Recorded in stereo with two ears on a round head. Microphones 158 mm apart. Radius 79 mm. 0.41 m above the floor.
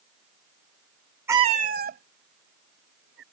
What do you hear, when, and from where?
1.3 s a cat meowing: 10° right (ahead or behind); by 3.2 s 70° right (ahead or behind)